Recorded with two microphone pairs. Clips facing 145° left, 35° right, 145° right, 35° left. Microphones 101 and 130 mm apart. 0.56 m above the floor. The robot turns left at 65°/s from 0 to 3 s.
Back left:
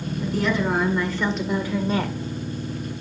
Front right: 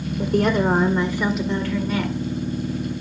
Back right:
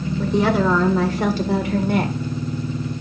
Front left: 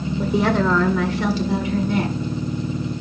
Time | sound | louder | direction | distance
0.2 | a woman speaking | front right 4 dB, back right 1 dB | 40° right | 1.7 m